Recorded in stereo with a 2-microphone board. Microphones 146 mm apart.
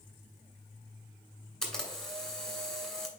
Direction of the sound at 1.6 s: 5° left (ahead or behind).